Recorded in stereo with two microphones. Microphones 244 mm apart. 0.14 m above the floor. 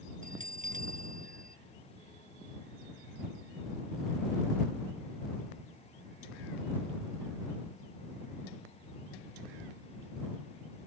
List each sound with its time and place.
0.2 s a bell: 35° right (ahead or behind)